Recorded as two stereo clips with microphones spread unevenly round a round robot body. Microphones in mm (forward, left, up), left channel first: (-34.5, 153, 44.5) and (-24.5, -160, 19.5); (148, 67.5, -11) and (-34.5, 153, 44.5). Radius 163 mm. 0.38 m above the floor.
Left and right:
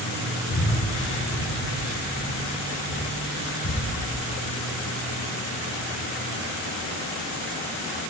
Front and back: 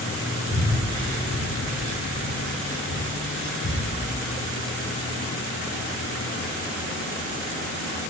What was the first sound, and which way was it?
Breathing, 130° left.